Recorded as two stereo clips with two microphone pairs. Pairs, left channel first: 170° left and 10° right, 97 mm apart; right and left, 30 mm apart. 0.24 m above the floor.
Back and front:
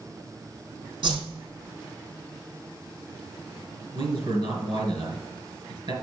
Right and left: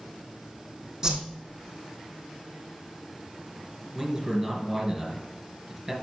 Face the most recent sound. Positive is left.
turn(degrees=10)